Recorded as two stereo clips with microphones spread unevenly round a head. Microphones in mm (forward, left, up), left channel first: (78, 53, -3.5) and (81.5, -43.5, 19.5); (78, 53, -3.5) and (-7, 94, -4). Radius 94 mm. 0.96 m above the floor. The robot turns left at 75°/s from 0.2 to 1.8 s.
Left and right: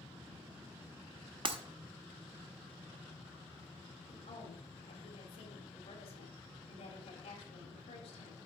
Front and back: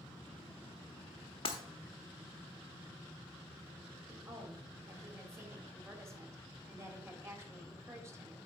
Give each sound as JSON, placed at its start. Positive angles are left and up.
{"t": 1.4, "sound": "breaking glass", "azimuth_deg": -70, "distance_m": 1.0}
{"t": 4.1, "sound": "a woman speaking", "azimuth_deg": 95, "distance_m": 2.5}